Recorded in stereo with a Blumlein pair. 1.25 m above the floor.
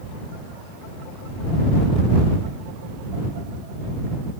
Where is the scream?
No scream in this recording.